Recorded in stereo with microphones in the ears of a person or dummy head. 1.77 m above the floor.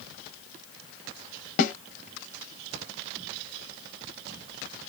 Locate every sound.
1.6 s a snare drum: 45° left (ahead or behind), 0.7 m